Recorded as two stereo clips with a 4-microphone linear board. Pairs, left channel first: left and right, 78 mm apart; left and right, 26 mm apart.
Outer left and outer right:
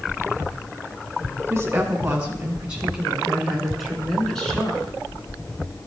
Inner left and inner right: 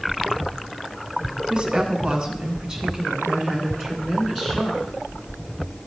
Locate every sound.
1.5 s a woman speaking: 30° right (ahead or behind), 2.5 m; by 5.0 s 10° left (ahead or behind), 3 m